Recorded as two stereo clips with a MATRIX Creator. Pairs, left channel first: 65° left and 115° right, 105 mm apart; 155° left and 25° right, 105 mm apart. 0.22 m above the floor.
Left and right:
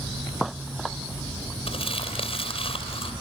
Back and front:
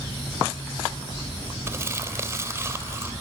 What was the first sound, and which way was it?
Crumpling, 45° left.